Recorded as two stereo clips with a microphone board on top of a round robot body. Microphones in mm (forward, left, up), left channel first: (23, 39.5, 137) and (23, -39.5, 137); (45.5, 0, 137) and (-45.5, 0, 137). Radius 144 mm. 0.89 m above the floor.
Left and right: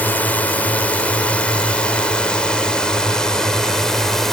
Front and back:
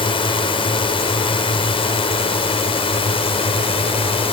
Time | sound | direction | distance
0.0 | a drone | 20° left | ?